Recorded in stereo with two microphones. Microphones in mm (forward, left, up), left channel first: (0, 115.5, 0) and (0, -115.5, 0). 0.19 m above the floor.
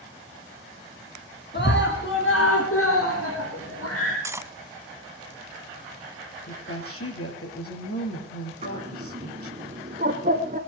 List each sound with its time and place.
1.5 s a scream: 45° left (ahead or behind), 2 m; by 4.1 s 70° left (ahead or behind), 5 m
4.2 s cutlery clinking: 10° right (ahead or behind), 0.8 m
6.5 s a woman speaking: 70° left (ahead or behind), 5 m
8.6 s a bird: 35° right (ahead or behind), 1.3 m